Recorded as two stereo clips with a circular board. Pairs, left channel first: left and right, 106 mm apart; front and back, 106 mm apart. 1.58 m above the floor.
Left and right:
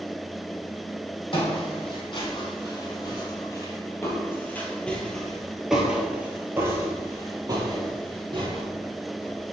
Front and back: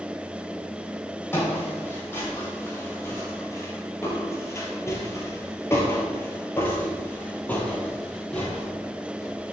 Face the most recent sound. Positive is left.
turn(degrees=-80)